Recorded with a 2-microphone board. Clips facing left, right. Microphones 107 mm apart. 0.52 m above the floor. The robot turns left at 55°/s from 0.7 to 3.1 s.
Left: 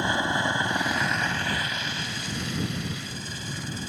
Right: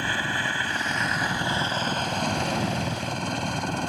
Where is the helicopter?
20° left; by 3.9 s 110° right.